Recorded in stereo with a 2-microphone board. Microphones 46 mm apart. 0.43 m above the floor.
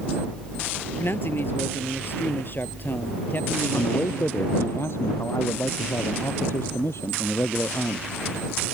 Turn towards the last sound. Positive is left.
turn(degrees=65)  # may be behind; listen again after turning